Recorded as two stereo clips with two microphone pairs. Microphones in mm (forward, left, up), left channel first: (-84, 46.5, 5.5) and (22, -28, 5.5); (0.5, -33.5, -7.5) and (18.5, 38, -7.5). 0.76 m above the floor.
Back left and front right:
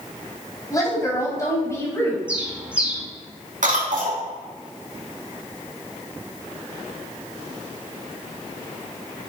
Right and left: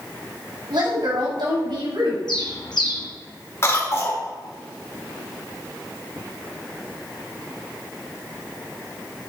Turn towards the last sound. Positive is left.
turn(degrees=-50)